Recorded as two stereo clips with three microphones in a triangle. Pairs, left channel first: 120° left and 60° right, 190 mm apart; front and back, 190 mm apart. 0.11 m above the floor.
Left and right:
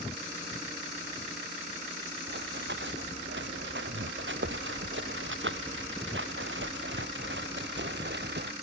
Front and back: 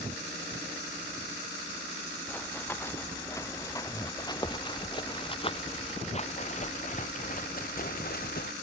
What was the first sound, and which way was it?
Running footsteps, 80° right.